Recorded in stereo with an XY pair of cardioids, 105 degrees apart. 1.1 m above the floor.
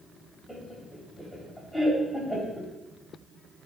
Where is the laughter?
10° left, 2.5 m.